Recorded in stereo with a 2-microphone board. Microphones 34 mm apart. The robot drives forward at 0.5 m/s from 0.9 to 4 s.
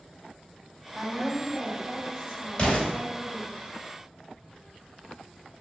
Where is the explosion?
25° left (ahead or behind), 1.7 m; by 2.9 s 30° left (ahead or behind), 1.7 m.